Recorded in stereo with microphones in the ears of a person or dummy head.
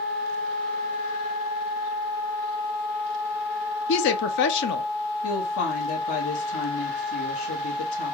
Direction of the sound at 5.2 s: 90° left.